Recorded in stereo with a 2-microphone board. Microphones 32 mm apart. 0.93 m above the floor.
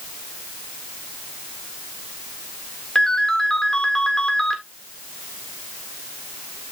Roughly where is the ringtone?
Centre.